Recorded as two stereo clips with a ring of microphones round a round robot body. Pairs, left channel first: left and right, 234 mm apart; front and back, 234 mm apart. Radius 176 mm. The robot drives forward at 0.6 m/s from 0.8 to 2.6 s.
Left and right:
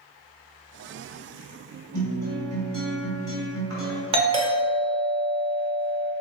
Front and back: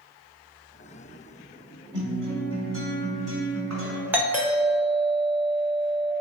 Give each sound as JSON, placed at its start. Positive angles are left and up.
{"t": 1.9, "sound": "a guitar", "azimuth_deg": -125, "distance_m": 1.9}
{"t": 4.1, "sound": "a doorbell", "azimuth_deg": -110, "distance_m": 0.9}